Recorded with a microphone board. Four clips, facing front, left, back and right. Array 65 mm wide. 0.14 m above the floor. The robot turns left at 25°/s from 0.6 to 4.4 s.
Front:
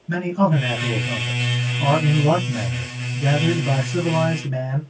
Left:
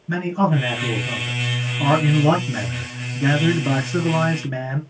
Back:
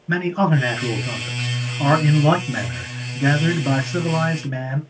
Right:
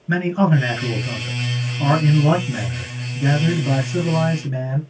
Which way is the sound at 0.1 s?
145° right.